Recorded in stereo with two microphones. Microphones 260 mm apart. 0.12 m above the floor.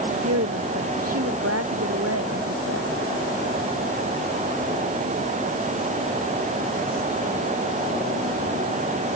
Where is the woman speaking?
65° right (ahead or behind).